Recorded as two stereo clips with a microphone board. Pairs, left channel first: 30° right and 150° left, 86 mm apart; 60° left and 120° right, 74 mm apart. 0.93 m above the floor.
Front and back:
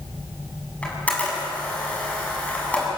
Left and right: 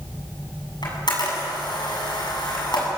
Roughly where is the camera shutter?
Ahead left.